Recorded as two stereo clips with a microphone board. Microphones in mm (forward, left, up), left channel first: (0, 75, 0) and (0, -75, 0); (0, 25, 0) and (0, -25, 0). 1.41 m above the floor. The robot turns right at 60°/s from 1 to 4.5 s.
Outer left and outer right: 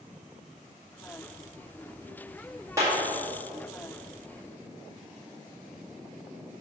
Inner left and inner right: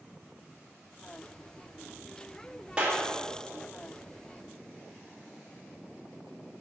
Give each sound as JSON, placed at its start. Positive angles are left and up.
{"t": 2.8, "sound": "a clap", "side_deg": -20, "distance_m": 1.8}